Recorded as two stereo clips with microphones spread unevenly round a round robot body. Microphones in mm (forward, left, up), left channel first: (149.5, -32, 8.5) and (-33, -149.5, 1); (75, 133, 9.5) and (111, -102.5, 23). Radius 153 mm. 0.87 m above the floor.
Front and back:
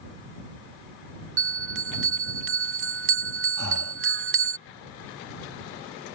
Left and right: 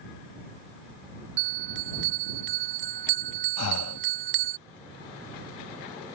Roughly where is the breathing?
Left.